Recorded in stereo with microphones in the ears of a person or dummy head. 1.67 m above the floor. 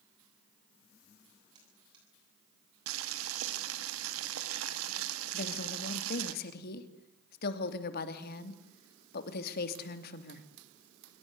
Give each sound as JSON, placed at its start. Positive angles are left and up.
{"t": 1.6, "sound": "a buzzer", "side_deg": -25, "distance_m": 9.5}
{"t": 2.9, "sound": "boiling", "side_deg": -80, "distance_m": 2.5}
{"t": 5.3, "sound": "a woman speaking", "side_deg": 55, "distance_m": 3.0}